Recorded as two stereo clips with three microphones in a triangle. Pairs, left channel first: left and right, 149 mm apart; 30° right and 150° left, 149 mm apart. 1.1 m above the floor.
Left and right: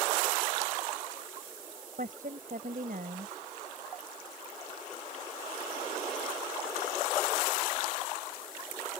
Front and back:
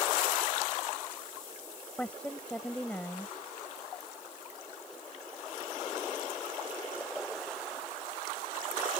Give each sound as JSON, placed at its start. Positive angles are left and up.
{"t": 2.0, "sound": "a woman speaking", "azimuth_deg": -115}